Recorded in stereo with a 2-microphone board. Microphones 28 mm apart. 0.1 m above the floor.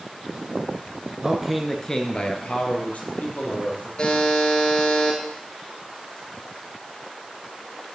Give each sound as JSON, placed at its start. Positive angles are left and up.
{"t": 1.2, "sound": "a man speaking", "side_deg": -25, "distance_m": 1.2}
{"t": 4.0, "sound": "a buzzer", "side_deg": 35, "distance_m": 2.0}